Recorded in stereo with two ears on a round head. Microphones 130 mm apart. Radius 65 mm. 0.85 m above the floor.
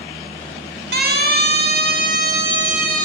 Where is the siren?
80° right, 6.5 m; by 3.0 s 60° right (ahead or behind), 7.5 m.